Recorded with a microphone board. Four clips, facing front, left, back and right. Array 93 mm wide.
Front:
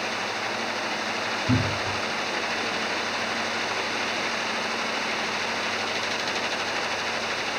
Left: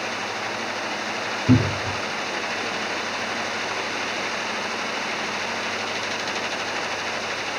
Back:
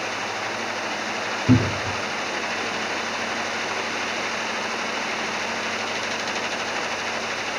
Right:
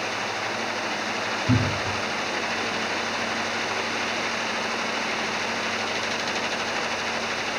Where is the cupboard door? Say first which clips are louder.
Left 6 dB, back 7 dB; 140° left, 1.3 m.